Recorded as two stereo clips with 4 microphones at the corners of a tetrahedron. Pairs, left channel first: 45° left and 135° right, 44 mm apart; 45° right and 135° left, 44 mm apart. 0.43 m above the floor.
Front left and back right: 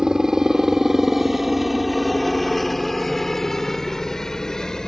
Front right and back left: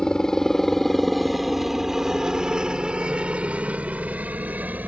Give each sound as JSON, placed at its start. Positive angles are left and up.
{"t": 0.0, "sound": "a helicopter", "azimuth_deg": -85}